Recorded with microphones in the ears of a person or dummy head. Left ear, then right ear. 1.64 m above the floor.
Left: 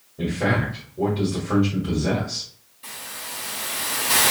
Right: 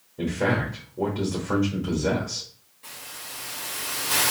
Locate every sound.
0.2 s a man speaking: 45° right (ahead or behind), 1.2 m
2.8 s a hiss: 5° left (ahead or behind), 1.2 m